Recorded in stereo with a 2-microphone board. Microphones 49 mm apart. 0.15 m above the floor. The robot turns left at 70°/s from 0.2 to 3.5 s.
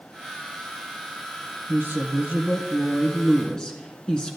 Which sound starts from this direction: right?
A woman speaking, at 1.7 s.